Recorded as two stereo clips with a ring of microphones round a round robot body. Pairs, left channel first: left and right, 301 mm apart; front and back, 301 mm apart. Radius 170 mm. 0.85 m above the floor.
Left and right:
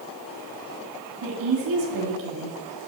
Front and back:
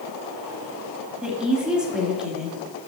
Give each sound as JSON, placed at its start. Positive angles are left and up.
{"t": 1.2, "sound": "a woman speaking", "azimuth_deg": -90, "distance_m": 2.0}